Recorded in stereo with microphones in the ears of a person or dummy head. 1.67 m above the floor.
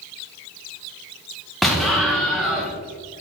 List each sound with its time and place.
1.6 s an explosion: centre (ahead or behind), 0.8 m